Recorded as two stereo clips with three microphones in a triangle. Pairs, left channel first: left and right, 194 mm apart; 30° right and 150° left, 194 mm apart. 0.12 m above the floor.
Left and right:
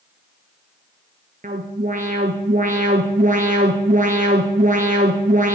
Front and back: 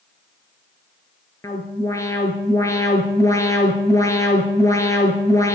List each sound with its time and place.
1.4 s an alarm: 100° right, 1.3 m